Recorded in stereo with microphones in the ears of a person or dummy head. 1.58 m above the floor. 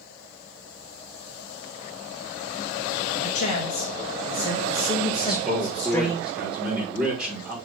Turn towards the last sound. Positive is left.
turn(degrees=-5)  # may be behind; listen again after turning